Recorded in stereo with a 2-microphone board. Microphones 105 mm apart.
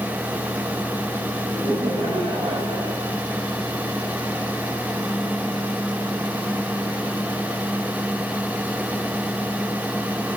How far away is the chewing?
No chewing in this recording.